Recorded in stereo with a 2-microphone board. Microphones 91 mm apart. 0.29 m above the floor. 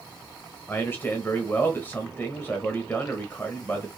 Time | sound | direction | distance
0.7 | a man speaking | 25° left (ahead or behind) | 1.0 m